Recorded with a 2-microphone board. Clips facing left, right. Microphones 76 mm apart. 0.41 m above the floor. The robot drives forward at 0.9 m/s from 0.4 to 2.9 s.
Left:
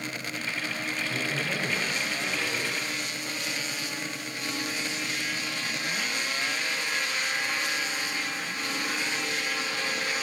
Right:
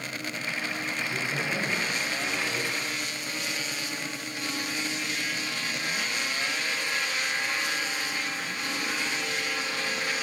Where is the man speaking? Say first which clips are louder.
Even; centre (ahead or behind), 3 m.